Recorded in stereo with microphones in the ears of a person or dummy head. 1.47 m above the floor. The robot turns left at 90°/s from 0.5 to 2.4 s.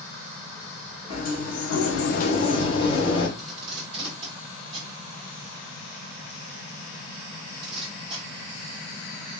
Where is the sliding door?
150° left, 0.9 m; by 3.3 s 30° left, 0.9 m.